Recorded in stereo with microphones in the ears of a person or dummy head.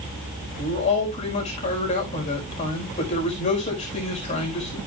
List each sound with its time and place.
0.6 s a man speaking: 30° left (ahead or behind), 4.5 m